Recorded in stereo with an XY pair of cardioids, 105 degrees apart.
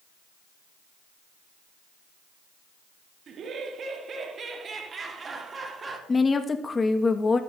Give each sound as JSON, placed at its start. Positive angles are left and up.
{"t": 3.3, "sound": "laughter", "azimuth_deg": -60, "distance_m": 2.5}
{"t": 6.1, "sound": "a woman speaking", "azimuth_deg": 30, "distance_m": 1.4}